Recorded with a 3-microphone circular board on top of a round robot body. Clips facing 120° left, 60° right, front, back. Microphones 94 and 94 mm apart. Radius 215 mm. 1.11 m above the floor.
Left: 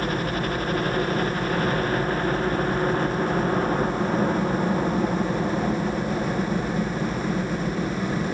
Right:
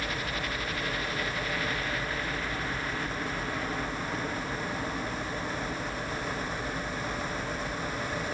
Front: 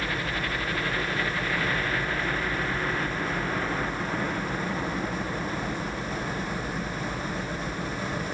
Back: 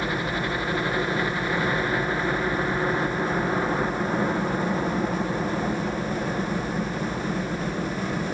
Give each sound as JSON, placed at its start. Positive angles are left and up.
{"t": 0.0, "sound": "a helicopter", "azimuth_deg": 120}